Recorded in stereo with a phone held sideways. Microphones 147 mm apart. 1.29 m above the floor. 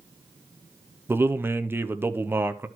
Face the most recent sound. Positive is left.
turn(degrees=-15)  # may be behind; listen again after turning